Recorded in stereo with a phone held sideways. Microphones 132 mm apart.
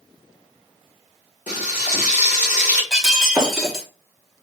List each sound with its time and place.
1.5 s frying: 80° left, 1.7 m
2.9 s breaking glass: 5° right (ahead or behind), 0.9 m